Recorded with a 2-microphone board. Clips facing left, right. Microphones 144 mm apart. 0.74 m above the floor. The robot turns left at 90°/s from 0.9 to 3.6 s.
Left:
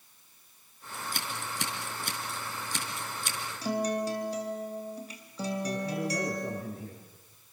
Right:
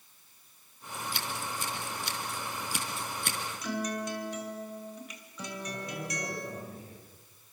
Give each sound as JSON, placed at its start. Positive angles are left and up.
{"t": 0.9, "sound": "scissors", "side_deg": 25, "distance_m": 4.5}
{"t": 3.6, "sound": "a guitar", "side_deg": 35, "distance_m": 3.5}
{"t": 5.6, "sound": "a man speaking", "side_deg": 80, "distance_m": 10.0}